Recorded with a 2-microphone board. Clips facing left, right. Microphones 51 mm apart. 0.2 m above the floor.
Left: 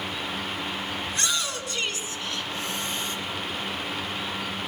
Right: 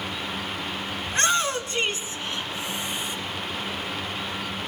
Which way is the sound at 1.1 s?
35° right (ahead or behind).